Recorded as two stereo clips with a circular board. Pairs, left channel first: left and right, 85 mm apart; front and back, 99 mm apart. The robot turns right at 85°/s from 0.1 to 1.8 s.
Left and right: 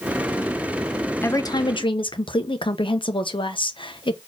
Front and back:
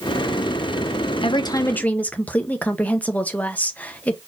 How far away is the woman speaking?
About 1.0 m.